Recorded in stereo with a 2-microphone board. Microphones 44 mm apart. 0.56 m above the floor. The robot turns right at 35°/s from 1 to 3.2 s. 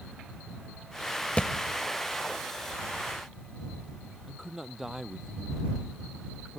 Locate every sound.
1.4 s a thud: 30° left (ahead or behind); by 1.5 s 25° left (ahead or behind)
4.3 s a man speaking: 10° right (ahead or behind)